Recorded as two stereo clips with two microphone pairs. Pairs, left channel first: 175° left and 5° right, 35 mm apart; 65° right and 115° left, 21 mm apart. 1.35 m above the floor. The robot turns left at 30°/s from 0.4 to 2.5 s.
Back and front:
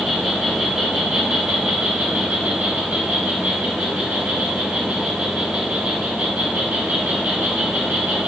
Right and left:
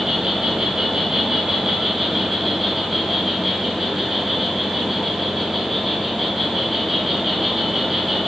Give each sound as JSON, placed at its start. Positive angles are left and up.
{"t": 0.0, "sound": "an insect", "azimuth_deg": 80, "distance_m": 1.0}